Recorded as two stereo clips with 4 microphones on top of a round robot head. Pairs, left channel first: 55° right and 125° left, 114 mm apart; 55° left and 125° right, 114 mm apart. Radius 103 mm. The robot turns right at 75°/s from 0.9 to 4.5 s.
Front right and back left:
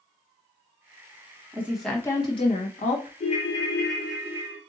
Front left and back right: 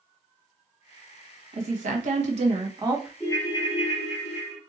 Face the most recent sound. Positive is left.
turn(degrees=70)